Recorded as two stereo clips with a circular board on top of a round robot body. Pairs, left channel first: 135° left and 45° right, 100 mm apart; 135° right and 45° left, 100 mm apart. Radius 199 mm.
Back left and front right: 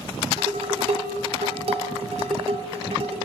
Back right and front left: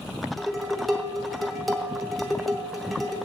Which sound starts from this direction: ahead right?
Dishes clattering, at 0.4 s.